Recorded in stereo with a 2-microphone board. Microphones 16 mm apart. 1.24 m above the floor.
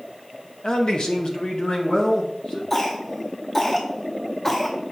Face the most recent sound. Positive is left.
turn(degrees=25)  # may be behind; listen again after turning